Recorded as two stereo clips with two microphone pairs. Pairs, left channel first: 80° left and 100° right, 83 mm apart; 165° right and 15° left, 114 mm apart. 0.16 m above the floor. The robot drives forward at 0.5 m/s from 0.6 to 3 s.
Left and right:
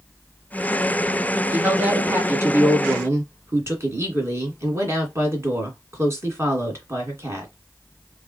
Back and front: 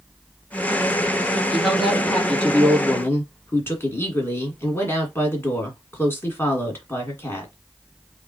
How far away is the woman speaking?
About 1.7 m.